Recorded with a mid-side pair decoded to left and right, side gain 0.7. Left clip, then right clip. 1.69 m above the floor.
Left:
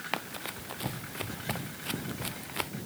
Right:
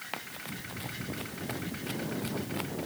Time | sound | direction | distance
0.1 | running footsteps | 25° left | ?